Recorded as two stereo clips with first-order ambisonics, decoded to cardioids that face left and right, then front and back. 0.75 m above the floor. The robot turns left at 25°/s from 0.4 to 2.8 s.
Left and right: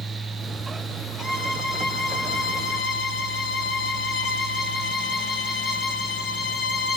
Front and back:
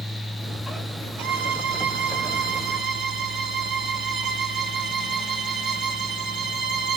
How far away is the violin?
About 5.5 m.